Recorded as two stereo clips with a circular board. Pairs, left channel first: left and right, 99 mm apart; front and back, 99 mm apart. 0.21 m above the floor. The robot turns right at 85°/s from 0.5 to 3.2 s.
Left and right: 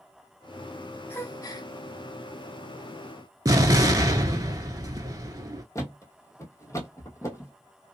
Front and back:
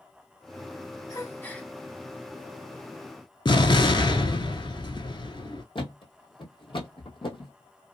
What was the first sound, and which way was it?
A gasp, 35° left.